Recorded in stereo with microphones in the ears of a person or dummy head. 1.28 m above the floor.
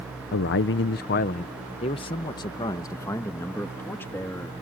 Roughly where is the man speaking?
Left.